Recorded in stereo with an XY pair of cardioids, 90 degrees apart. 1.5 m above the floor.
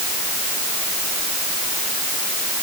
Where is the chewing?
No chewing in this recording.